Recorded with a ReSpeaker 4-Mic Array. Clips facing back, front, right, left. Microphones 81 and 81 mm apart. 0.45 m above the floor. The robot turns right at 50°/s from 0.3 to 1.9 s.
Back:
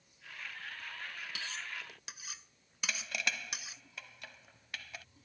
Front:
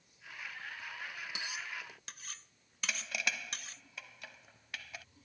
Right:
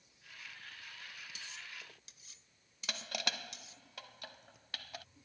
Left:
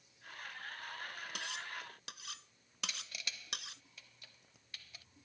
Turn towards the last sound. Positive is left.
turn(degrees=-90)